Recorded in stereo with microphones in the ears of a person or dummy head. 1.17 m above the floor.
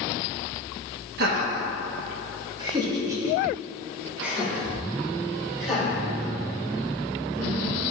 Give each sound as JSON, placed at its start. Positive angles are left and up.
{"t": 1.2, "sound": "laughter", "side_deg": -60, "distance_m": 1.5}